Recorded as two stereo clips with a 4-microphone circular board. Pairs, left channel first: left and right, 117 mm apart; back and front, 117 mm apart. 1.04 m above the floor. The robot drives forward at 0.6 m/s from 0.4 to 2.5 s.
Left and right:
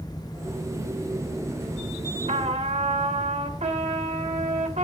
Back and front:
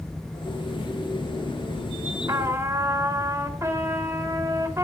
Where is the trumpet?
60° right, 1.8 m; by 4.8 s 65° right, 1.7 m.